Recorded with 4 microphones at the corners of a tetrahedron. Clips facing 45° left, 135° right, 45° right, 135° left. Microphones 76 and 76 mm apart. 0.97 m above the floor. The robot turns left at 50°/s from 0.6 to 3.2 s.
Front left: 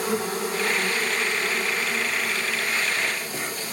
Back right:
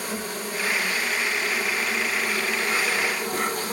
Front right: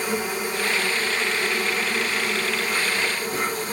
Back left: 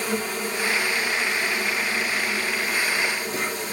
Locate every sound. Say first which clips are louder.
0.0 s an insect: front left 5 dB, front right 1 dB; 30° left, 3 m; by 3.7 s 100° right, 3 m